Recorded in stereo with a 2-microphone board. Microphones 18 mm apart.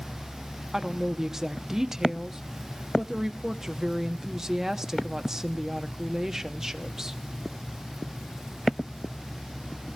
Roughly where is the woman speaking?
Right.